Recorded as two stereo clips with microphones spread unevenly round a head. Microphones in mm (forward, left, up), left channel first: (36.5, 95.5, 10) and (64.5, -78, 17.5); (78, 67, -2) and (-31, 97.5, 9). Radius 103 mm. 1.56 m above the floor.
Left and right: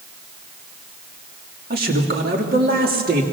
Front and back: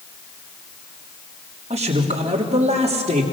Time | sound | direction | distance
1.7 | a man speaking | 135° right | 3 m